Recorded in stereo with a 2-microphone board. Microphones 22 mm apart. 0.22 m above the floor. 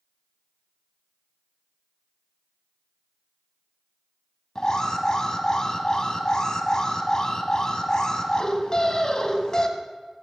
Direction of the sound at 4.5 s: 35° left (ahead or behind).